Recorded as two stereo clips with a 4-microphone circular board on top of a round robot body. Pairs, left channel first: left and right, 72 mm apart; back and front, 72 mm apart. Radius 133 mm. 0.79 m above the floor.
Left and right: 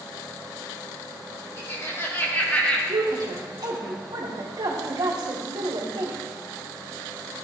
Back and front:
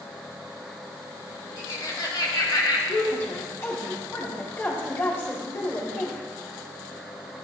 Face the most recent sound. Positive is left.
turn(degrees=-120)